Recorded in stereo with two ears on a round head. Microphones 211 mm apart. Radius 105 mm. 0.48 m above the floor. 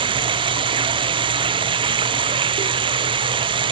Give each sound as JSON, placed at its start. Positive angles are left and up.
{"t": 0.0, "sound": "running water", "side_deg": -20}